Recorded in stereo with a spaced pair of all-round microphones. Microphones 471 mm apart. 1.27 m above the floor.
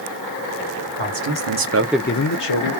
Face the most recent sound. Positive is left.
turn(degrees=65)  # may be behind; listen again after turning